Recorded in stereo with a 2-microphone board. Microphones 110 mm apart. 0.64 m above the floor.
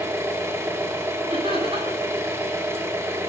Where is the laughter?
60° right (ahead or behind), 8.5 m.